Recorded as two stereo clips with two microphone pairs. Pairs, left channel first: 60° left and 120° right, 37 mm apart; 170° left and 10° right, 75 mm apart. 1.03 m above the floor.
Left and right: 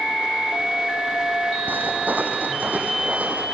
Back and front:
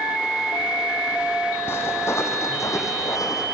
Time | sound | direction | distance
1.7 | footsteps | 135° right | 2.5 m